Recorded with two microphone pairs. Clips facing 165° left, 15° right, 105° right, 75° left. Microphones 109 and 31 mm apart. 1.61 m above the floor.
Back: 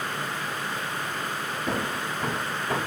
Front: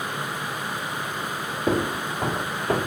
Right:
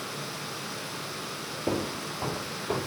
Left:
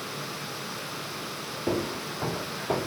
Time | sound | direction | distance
1.7 | footsteps | 10° right | 2.5 m